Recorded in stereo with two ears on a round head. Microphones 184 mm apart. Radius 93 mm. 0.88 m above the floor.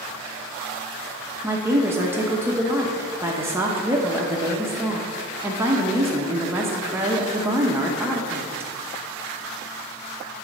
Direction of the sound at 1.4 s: 10° right (ahead or behind).